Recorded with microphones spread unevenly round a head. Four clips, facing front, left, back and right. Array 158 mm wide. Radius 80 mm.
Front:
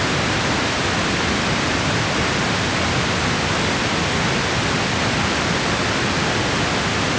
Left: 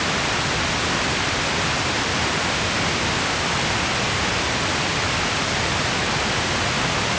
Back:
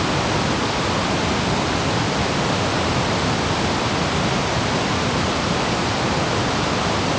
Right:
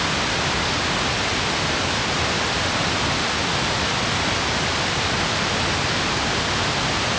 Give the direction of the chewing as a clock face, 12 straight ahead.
I don't hear chewing.